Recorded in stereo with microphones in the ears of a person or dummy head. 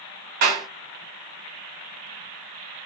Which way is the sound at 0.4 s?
55° right (ahead or behind).